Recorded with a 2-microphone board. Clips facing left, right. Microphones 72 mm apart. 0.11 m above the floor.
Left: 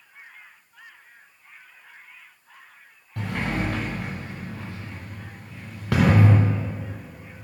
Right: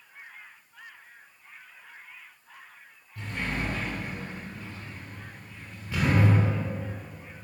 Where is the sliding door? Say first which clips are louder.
Left 5 dB; 75° left (ahead or behind), 2 m.